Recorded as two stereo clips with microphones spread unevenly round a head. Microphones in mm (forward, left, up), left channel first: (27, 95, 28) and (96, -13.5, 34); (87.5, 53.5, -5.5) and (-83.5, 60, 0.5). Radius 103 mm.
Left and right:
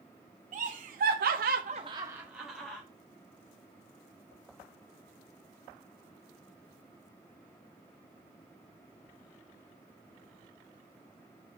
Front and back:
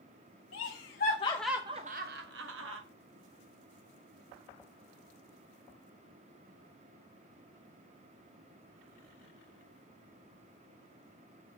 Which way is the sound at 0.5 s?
30° right.